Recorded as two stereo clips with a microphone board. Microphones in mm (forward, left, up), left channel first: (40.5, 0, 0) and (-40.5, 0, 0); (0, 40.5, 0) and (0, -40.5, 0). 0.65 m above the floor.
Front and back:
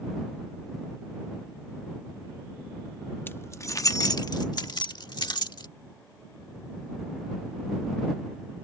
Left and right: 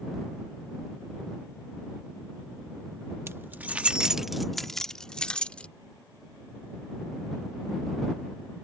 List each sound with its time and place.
3.3 s keys jangling: 50° right; by 5.7 s 15° left